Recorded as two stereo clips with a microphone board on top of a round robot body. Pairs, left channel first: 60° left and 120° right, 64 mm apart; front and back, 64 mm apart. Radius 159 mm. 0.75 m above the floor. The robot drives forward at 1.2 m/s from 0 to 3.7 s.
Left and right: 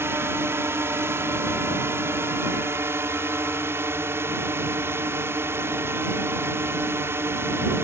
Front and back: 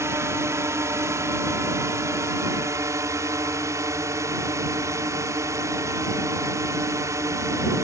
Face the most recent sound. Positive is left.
turn(degrees=-160)